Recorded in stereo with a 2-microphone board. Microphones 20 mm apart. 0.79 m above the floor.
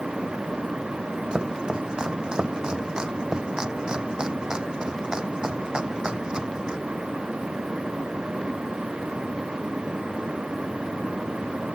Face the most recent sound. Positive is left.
turn(degrees=-45)  # may be behind; listen again after turning